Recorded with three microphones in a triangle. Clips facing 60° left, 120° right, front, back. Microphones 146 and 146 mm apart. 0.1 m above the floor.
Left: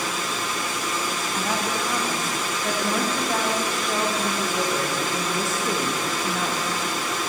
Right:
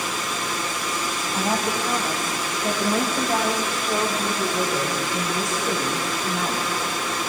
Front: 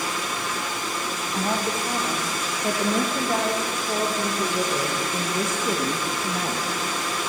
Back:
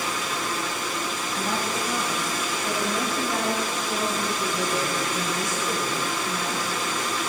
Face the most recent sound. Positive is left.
turn(degrees=-20)